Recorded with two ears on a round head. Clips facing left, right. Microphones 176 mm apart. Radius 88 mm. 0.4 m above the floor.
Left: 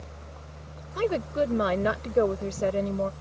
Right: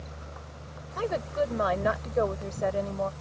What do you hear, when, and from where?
1.0 s a woman speaking: 40° left (ahead or behind)